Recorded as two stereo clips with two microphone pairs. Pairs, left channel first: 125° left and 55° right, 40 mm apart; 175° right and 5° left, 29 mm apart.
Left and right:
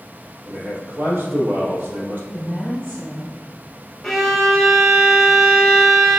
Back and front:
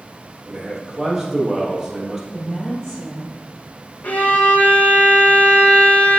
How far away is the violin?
About 1.1 m.